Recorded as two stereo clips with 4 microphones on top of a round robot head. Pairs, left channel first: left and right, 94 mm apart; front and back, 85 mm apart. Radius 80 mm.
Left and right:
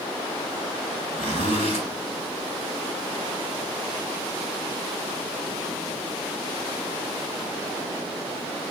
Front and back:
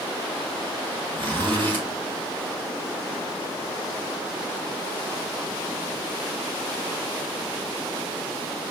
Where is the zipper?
165° left, 3.5 m.